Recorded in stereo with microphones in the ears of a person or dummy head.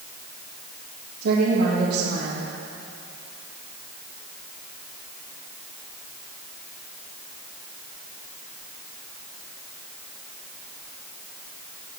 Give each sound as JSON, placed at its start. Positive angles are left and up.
{"t": 1.2, "sound": "a woman speaking", "side_deg": -70, "distance_m": 2.5}